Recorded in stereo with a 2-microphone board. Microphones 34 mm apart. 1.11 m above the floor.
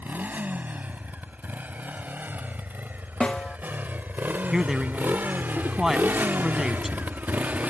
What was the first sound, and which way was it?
A motorcycle, 55° right (ahead or behind).